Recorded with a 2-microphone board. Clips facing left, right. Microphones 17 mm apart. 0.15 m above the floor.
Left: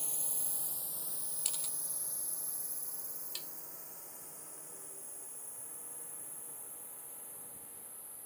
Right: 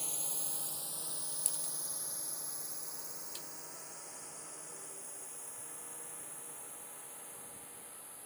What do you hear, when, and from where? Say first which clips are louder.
0.0 s a drone: right 1 dB; 20° right (ahead or behind); by 8.3 s 25° right (ahead or behind)
1.4 s a camera shutter: left 4 dB; 30° left (ahead or behind)
3.4 s tapping: left 6 dB; 25° left (ahead or behind)